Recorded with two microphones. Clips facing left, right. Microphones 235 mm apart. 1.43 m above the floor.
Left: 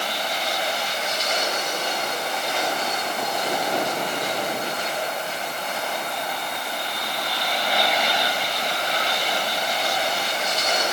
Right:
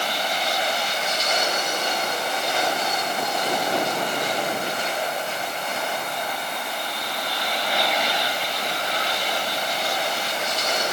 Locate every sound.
Only background noise.